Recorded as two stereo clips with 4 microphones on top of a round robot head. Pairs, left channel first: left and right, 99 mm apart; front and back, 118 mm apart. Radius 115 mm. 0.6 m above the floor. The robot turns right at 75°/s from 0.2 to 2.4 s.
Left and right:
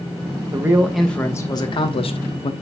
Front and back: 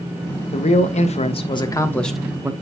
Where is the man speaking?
30° right, 1.1 m; by 2.5 s 110° left, 1.1 m.